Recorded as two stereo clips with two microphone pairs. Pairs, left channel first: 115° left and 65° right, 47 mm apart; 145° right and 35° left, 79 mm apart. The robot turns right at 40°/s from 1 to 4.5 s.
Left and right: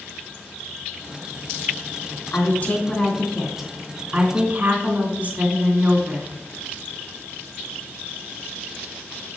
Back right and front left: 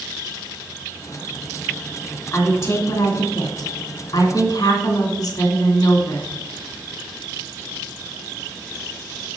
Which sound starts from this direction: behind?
A woman speaking, at 2.3 s.